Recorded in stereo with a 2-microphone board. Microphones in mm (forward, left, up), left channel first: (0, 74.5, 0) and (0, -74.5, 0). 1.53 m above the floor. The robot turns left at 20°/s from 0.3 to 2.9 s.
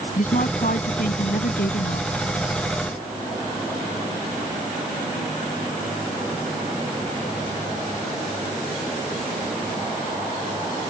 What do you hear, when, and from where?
0.2 s a woman speaking: 120° left; by 2.1 s 85° left